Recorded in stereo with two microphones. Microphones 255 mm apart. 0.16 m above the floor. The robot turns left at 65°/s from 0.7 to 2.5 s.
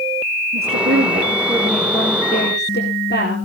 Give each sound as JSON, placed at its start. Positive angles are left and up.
{"t": 0.5, "sound": "a woman speaking", "azimuth_deg": -110, "distance_m": 4.0}